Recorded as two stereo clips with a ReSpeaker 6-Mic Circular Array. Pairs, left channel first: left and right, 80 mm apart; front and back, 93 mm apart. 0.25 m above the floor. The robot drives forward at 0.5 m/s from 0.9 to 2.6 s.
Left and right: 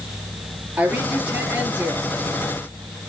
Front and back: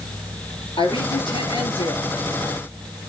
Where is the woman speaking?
15° right, 5.5 m; by 2.1 s 20° right, 5 m.